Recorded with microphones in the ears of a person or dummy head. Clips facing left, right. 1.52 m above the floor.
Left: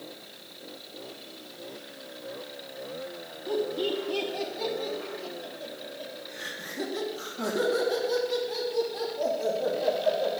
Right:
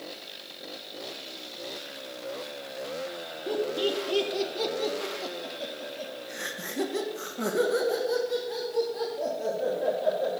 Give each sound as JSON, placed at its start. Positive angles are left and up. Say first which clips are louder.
{"t": 3.5, "sound": "laughter", "louder": "even", "side_deg": -45, "distance_m": 1.7}